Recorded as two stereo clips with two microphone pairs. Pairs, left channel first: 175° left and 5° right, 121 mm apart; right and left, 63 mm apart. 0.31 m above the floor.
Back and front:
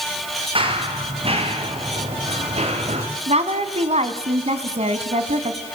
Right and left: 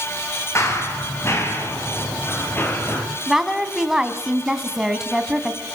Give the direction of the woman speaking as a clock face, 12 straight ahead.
12 o'clock.